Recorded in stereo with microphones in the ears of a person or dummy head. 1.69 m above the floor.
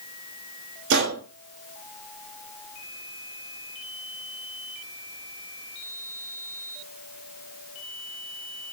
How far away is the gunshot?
About 0.8 m.